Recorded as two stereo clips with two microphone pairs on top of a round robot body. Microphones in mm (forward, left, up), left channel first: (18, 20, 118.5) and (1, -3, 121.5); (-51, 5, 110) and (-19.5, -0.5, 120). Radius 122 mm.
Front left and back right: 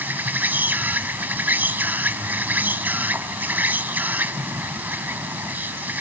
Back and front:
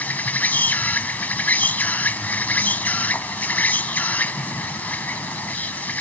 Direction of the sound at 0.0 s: 155° right.